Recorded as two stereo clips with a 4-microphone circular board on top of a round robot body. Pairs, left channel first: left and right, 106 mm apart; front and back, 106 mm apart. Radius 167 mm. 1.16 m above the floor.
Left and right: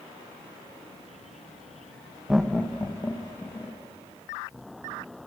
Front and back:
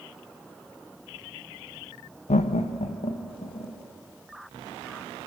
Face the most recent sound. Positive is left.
turn(degrees=30)